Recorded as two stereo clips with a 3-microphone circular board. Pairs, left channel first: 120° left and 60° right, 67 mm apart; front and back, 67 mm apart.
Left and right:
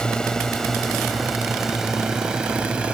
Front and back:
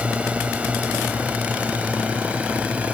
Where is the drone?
175° left; by 2.9 s 125° right.